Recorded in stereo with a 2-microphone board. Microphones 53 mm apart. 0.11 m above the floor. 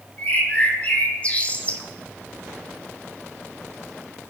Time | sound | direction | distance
0.2 | a bird | 25° left (ahead or behind) | 1.7 m